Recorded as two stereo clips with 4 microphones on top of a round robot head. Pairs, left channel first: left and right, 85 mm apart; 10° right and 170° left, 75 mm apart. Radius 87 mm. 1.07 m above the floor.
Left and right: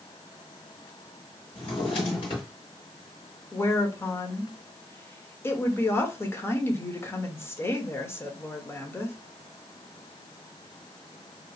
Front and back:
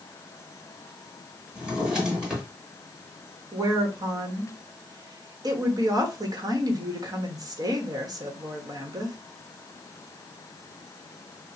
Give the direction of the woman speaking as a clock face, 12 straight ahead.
7 o'clock.